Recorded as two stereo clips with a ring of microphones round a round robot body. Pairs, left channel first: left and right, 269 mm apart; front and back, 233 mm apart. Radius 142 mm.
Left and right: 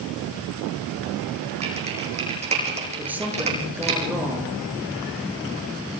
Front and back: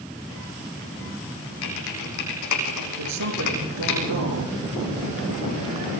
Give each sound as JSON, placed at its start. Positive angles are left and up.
{"t": 1.6, "sound": "typing on a keyboard", "azimuth_deg": -20, "distance_m": 8.0}
{"t": 3.0, "sound": "a woman speaking", "azimuth_deg": -175, "distance_m": 6.5}